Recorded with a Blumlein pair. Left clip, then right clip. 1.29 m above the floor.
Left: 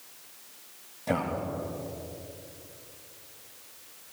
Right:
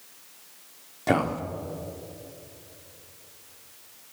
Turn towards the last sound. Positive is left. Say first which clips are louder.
# right 5 dB
turn(degrees=-55)